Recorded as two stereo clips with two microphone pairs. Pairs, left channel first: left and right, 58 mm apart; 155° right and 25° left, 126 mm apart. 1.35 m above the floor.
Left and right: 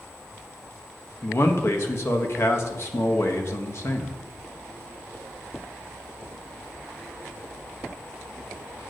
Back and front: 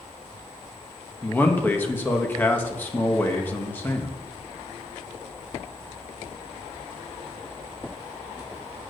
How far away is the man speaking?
About 1.4 m.